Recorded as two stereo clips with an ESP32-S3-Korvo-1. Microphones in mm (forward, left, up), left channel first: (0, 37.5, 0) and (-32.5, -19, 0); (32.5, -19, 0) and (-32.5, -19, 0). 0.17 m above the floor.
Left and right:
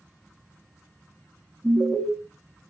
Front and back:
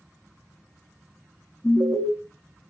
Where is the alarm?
35° right, 1.1 m.